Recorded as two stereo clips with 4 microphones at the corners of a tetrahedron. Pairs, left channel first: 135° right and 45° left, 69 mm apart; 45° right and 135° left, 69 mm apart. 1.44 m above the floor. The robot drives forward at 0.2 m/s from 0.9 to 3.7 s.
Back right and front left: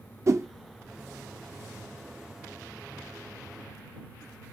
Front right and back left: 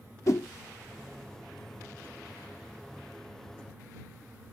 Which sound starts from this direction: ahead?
A whoosh, at 0.3 s.